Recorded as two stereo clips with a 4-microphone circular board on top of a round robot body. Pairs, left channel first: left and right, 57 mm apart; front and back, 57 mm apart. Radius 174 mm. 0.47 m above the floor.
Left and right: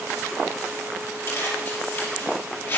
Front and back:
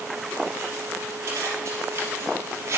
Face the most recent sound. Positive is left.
turn(degrees=140)